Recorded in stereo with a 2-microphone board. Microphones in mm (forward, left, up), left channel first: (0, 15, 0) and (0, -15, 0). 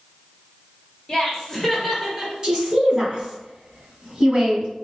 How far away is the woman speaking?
About 2.5 m.